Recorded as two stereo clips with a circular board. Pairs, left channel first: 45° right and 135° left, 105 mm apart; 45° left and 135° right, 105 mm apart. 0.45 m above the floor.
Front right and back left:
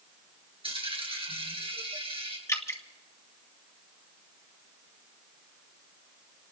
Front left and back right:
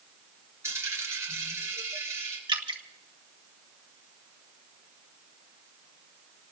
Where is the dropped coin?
165° left, 3 m.